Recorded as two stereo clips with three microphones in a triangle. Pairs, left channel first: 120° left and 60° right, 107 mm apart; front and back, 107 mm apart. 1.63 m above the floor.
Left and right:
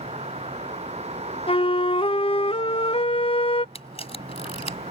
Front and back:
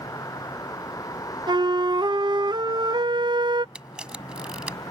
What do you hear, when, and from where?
0.0 s a vehicle: 55° right
1.5 s a flute: 140° left
3.8 s a camera shutter: 100° left